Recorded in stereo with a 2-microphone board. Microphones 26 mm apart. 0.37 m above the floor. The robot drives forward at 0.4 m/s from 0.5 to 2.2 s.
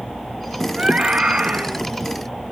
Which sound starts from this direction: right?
A scream, at 0.8 s.